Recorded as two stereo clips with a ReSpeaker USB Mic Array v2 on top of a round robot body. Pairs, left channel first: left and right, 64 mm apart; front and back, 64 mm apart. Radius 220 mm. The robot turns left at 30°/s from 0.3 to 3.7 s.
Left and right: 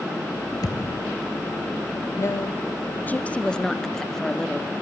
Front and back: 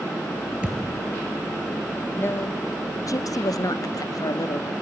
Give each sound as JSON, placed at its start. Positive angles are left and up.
{"t": 0.6, "sound": "a thud", "azimuth_deg": 110, "distance_m": 0.7}
{"t": 2.2, "sound": "a woman speaking", "azimuth_deg": 55, "distance_m": 1.7}